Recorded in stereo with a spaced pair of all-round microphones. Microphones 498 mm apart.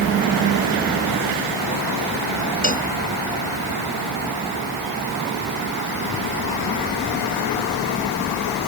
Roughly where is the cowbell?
Centre.